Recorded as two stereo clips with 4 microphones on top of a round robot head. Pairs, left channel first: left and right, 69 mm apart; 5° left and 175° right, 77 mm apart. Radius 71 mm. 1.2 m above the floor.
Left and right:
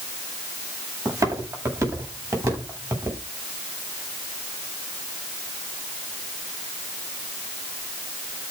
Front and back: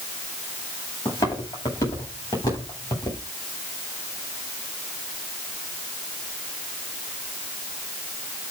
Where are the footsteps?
50° right, 9.5 m; by 3.2 s 45° right, 9 m.